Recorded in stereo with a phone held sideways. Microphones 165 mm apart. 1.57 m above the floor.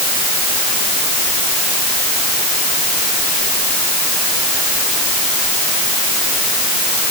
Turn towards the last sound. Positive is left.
No sound to turn to.